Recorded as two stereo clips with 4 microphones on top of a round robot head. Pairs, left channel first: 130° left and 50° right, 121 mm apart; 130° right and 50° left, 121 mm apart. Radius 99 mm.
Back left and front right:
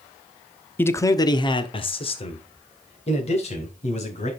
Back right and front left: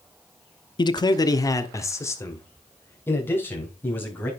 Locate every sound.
0.8 s a man speaking: 165° right, 0.9 m; by 4.3 s 160° left, 4 m